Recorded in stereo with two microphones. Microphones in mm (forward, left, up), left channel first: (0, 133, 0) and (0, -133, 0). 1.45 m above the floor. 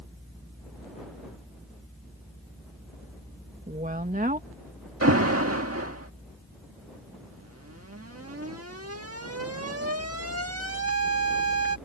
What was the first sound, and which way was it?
A woman speaking, 30° right (ahead or behind).